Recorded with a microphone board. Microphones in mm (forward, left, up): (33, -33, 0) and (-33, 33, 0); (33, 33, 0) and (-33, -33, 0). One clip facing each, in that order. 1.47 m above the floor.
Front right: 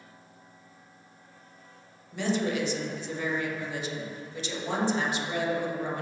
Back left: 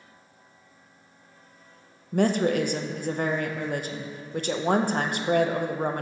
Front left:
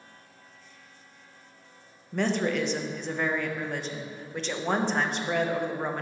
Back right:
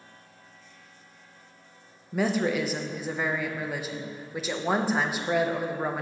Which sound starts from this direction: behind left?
A woman speaking, at 2.1 s.